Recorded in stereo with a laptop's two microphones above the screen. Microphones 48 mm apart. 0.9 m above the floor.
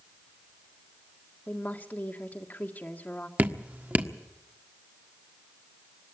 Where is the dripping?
35° right (ahead or behind), 1.4 m.